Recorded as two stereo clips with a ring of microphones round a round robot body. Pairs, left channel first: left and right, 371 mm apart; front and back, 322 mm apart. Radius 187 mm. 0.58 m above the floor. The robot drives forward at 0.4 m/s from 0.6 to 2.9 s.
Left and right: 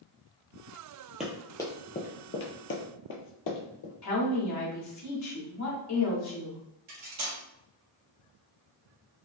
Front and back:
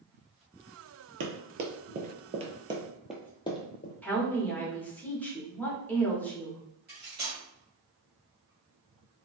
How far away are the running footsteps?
About 0.6 m.